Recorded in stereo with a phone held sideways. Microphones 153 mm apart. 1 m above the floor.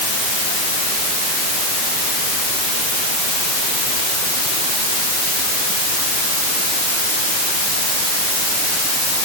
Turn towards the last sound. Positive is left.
No sound to turn to.